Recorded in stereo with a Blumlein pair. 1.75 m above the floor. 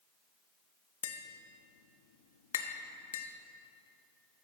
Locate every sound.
1.0 s tapping: 60° left, 0.6 m